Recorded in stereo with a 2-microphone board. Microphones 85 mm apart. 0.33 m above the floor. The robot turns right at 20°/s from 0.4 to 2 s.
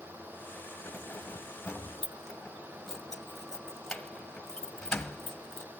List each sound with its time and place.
0.8 s keys jangling: 25° left (ahead or behind), 1.5 m; by 5.7 s 5° left (ahead or behind), 1.5 m